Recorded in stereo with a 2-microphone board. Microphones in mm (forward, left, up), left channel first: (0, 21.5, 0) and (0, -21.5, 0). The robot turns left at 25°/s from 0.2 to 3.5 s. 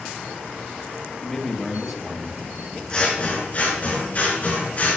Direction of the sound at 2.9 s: 25° left (ahead or behind).